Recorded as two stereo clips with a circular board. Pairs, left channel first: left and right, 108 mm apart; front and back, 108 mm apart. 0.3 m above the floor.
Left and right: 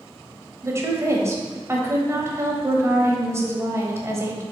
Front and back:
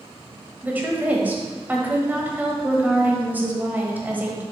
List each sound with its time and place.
0.6 s a woman speaking: 125° right, 1.2 m